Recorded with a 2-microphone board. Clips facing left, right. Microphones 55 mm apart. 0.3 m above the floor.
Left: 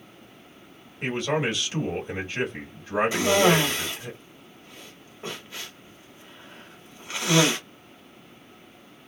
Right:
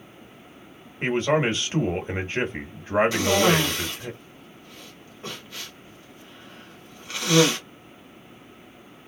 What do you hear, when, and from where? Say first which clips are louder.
1.0 s a man speaking: right 4 dB; 35° right (ahead or behind), 1.3 m
3.1 s a cough: left 1 dB; 20° left (ahead or behind), 1.6 m